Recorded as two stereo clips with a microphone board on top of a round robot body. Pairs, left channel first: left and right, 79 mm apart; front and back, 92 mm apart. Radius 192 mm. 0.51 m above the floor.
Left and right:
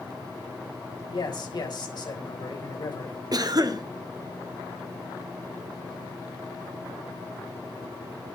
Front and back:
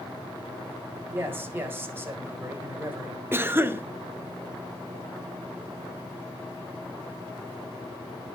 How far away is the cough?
About 1.9 m.